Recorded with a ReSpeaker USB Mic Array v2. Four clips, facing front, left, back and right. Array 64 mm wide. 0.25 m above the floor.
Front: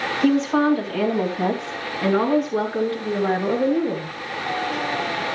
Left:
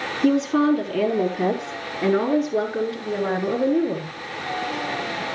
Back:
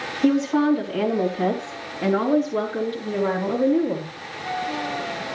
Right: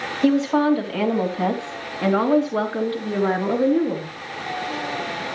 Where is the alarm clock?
No alarm clock in this recording.